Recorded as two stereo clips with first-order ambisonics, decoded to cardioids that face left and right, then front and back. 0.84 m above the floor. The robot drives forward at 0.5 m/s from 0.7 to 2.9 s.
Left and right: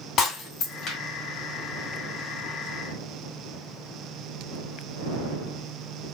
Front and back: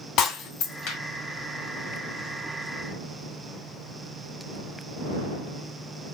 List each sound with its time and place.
0.2 s breaking glass: 40° left, 2.0 m